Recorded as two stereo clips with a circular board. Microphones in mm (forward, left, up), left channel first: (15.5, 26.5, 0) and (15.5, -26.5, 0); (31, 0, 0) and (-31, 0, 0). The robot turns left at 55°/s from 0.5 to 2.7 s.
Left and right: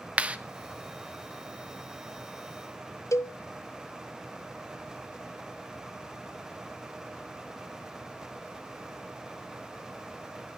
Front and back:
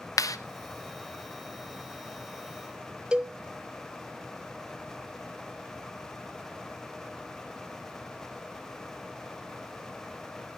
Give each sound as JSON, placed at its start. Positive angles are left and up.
{"t": 0.2, "sound": "a clap", "azimuth_deg": -20, "distance_m": 0.6}
{"t": 3.1, "sound": "a cowbell", "azimuth_deg": 105, "distance_m": 0.7}